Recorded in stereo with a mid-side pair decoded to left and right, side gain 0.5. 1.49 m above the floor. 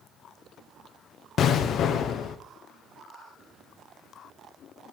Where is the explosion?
60° left, 0.6 m.